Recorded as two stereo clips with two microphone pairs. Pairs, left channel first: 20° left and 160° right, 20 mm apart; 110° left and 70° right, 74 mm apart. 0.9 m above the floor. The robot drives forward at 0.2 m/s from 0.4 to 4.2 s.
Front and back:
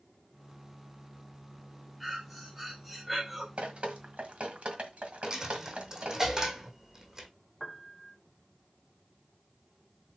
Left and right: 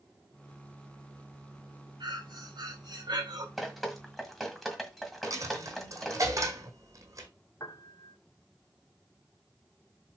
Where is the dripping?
155° right, 1.6 m; by 6.2 s 160° right, 1.7 m.